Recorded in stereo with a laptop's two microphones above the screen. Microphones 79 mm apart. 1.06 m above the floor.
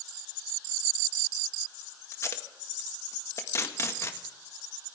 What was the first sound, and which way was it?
Tape being pulled, 40° left (ahead or behind).